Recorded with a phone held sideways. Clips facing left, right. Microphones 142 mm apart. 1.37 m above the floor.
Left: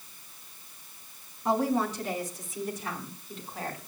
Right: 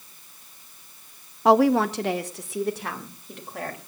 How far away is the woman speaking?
About 0.7 m.